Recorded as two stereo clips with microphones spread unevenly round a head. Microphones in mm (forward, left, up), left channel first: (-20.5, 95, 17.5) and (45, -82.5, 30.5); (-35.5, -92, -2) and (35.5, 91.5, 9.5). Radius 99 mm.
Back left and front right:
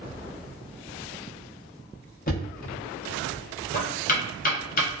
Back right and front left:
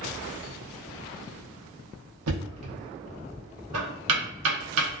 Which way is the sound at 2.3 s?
65° left.